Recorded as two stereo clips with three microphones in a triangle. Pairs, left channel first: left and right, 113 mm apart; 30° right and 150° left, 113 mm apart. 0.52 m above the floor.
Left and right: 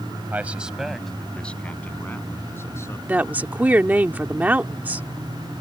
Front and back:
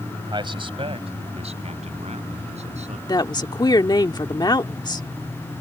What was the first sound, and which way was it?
A man speaking, 165° right.